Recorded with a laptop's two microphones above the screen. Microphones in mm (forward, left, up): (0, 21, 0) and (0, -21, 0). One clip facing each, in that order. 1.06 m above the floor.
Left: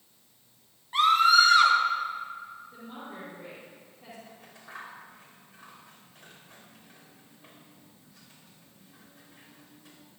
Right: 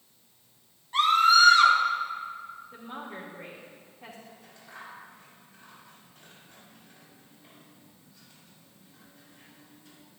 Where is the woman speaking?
50° right (ahead or behind), 3 m.